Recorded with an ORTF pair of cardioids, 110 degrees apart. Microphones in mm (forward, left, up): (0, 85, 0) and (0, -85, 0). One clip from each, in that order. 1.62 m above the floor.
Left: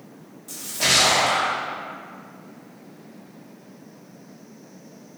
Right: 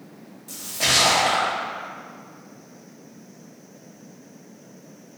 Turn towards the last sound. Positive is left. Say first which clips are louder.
# left 1 dB
turn(degrees=0)